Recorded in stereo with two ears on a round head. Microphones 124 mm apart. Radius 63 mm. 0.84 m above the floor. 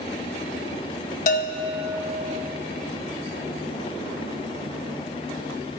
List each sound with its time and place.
1.3 s a bell: 60° left (ahead or behind), 0.6 m